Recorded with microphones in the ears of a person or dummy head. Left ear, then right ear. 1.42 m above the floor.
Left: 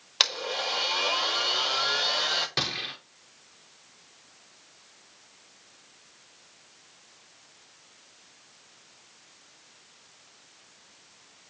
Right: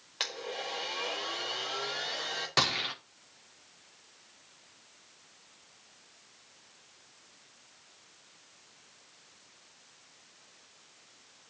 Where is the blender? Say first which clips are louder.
Left 10 dB; 40° left (ahead or behind), 1.6 m.